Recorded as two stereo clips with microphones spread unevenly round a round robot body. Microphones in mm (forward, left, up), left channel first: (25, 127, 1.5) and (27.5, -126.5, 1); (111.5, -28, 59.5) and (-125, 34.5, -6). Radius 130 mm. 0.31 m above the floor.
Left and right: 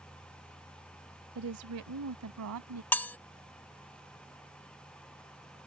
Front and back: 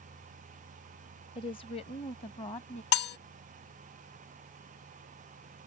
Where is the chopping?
I don't hear chopping.